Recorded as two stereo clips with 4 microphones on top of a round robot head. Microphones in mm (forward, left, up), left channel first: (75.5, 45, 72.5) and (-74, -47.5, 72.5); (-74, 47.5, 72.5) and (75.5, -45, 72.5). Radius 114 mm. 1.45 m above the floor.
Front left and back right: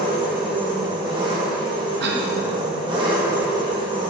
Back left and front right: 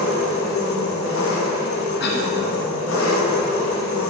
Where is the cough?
Straight behind, 1.3 m.